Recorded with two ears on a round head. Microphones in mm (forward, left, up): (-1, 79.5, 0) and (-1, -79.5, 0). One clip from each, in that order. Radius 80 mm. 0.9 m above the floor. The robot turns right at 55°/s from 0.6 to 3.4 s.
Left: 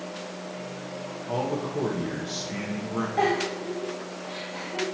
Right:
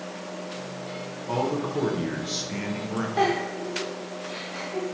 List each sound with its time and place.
1.3 s a man speaking: 10° right (ahead or behind), 0.6 m; by 3.1 s 15° right (ahead or behind), 0.6 m
3.2 s a giggle: 60° right (ahead or behind), 1.6 m; by 4.9 s 55° right (ahead or behind), 1.6 m